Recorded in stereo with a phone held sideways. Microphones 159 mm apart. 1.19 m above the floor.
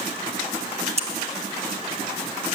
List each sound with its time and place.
1.0 s scissors: 40° right (ahead or behind), 1.2 m